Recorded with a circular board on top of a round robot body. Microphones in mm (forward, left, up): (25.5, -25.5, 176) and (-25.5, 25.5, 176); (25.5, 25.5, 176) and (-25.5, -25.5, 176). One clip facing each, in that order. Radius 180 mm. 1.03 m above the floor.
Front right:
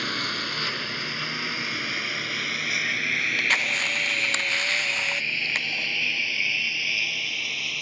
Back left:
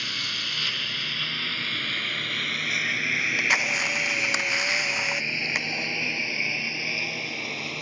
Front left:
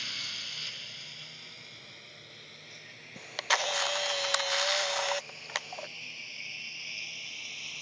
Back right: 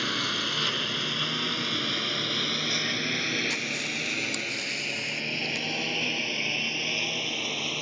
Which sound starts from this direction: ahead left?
A camera shutter, at 3.2 s.